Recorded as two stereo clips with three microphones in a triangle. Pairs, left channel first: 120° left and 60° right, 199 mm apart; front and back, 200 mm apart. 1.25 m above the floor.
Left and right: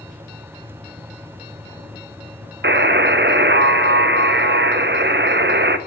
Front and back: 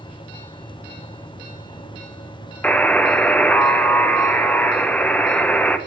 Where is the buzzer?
80° right, 0.5 m.